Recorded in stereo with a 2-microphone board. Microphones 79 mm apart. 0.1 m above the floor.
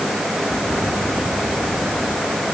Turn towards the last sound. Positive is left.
No sound to turn to.